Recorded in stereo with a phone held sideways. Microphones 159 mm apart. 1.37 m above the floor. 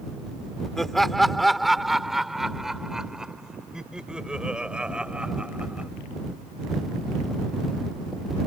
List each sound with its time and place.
0.8 s laughter: centre (ahead or behind); by 5.9 s 5° right (ahead or behind)